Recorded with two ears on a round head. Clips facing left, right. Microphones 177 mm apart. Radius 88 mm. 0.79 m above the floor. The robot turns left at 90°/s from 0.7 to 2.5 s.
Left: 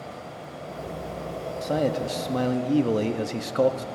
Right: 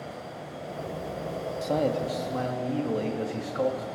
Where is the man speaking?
175° right, 0.8 m; by 3.9 s 105° left, 0.8 m.